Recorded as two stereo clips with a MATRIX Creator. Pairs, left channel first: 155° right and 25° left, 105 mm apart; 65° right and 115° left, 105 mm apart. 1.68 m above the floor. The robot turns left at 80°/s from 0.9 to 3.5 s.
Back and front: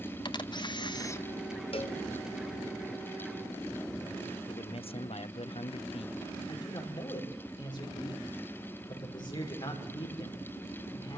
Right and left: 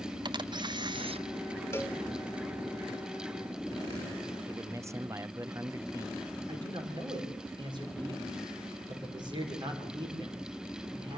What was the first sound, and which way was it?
A camera shutter, 160° left.